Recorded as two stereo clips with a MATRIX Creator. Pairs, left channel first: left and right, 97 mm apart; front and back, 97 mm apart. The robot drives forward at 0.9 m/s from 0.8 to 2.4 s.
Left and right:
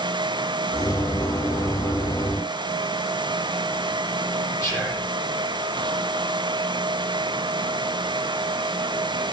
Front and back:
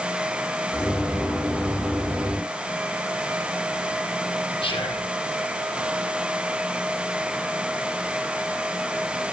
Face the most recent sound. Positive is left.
turn(degrees=30)